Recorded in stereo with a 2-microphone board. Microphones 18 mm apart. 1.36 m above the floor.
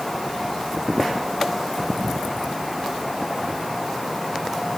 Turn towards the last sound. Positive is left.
No sound to turn to.